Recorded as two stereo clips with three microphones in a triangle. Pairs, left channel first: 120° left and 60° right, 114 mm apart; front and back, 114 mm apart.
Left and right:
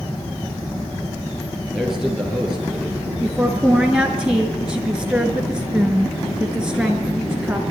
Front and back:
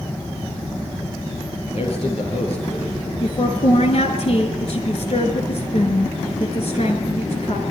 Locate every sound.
1.7 s a man speaking: 25° left, 6.5 m
3.2 s a woman speaking: 25° left, 4.5 m